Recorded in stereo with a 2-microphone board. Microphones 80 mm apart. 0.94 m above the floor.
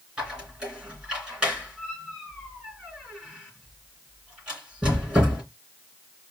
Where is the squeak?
10° right (ahead or behind), 3 m.